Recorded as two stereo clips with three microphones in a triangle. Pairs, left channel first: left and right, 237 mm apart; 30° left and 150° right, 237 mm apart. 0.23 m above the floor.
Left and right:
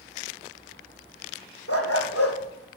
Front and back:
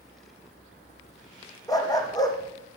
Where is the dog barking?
105° left, 3.5 m.